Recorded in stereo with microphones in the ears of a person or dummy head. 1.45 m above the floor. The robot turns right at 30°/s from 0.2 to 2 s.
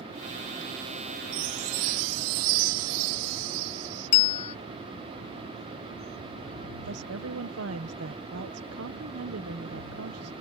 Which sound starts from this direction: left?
A bell, at 4.1 s.